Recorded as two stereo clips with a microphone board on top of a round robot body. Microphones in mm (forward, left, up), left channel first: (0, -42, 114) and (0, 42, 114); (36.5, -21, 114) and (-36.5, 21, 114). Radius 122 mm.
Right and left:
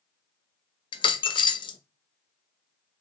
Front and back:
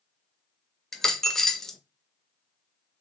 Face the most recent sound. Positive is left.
turn(degrees=-115)